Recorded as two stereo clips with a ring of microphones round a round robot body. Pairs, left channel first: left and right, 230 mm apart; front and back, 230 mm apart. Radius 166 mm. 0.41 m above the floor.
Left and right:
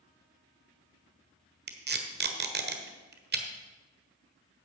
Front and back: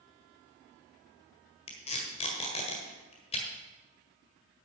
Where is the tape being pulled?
60° right, 1.4 m.